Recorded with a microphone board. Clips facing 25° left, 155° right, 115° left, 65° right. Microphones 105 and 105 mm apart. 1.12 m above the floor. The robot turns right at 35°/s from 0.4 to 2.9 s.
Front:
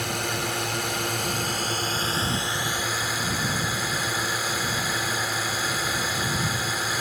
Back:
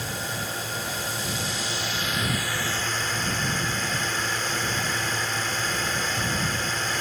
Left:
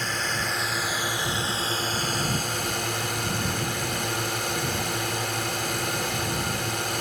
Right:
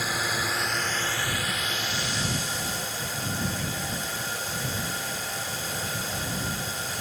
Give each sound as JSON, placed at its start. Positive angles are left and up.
{"t": 0.0, "sound": "a drone", "azimuth_deg": 15}